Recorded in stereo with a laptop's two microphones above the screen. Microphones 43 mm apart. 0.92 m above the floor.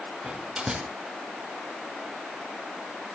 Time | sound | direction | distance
0.2 | a door slam | 15° right (ahead or behind) | 8 m